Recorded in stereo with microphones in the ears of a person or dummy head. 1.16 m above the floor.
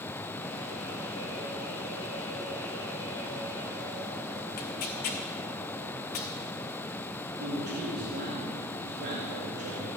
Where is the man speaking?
55° right (ahead or behind), 1.9 m.